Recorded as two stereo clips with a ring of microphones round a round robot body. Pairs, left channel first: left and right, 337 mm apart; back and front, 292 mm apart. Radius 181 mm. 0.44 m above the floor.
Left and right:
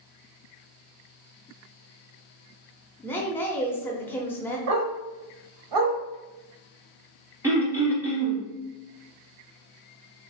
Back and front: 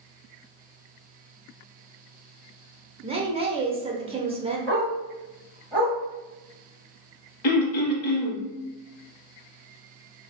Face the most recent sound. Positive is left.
turn(degrees=-175)